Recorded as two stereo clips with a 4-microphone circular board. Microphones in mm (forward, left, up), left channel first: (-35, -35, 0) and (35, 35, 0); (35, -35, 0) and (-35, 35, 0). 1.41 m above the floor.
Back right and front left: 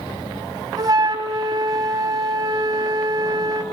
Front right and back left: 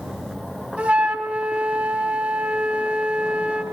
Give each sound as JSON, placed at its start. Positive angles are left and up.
{"t": 0.8, "sound": "a flute", "azimuth_deg": 65, "distance_m": 1.6}